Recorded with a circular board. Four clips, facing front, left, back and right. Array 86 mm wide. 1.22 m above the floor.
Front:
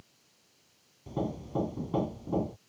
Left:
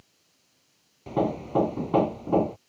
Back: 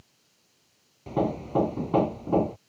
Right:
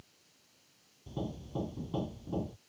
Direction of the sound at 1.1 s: 120° left.